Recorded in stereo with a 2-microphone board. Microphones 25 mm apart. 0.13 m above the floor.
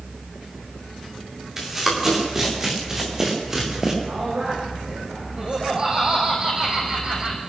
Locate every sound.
1.6 s running footsteps: 20° right (ahead or behind), 9.5 m
4.1 s a man speaking: 65° right (ahead or behind), 8.5 m
5.4 s laughter: 35° right (ahead or behind), 6.5 m